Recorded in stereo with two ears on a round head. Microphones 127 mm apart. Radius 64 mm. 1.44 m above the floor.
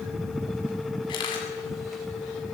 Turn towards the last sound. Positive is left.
turn(degrees=35)  # may be behind; listen again after turning